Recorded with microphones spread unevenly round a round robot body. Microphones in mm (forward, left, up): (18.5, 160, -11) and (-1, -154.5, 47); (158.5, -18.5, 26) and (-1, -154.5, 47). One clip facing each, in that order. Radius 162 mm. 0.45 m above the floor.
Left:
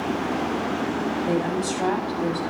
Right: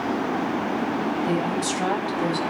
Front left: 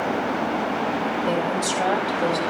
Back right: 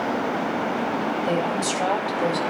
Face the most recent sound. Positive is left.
turn(degrees=-50)